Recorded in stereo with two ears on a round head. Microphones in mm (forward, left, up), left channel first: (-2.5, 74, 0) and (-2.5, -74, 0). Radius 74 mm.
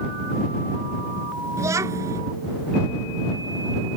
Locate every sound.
1.6 s a child speaking: 20° right (ahead or behind)